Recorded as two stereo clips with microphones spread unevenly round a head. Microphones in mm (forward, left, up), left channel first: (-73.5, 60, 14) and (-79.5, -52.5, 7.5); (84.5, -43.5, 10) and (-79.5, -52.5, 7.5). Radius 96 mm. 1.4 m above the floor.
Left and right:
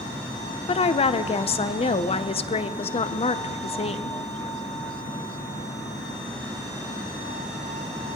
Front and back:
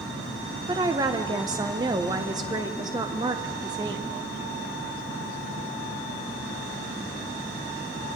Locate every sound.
0.7 s a woman speaking: 115° left, 0.6 m